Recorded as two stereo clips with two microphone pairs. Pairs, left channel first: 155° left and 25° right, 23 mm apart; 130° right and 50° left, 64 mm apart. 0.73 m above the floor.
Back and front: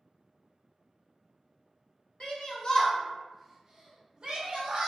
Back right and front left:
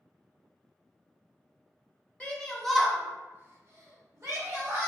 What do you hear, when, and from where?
2.2 s a shout: 160° left, 0.8 m; by 4.9 s 10° left, 1.2 m